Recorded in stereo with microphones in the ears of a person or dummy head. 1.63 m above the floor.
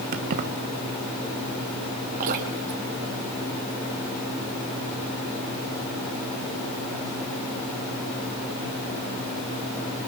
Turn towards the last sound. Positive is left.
turn(degrees=-45)  # may be behind; listen again after turning